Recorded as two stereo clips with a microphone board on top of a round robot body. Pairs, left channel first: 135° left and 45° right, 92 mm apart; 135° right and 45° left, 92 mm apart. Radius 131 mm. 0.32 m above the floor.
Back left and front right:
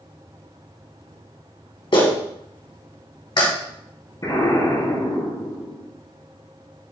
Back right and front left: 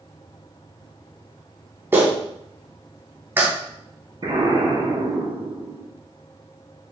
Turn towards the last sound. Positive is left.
turn(degrees=85)